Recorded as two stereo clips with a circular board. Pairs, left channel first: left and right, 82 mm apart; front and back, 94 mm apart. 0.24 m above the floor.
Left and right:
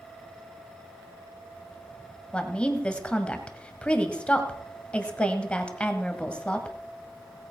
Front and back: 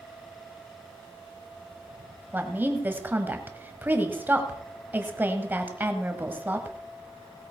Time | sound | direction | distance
2.3 | a woman speaking | 145° left | 1.3 m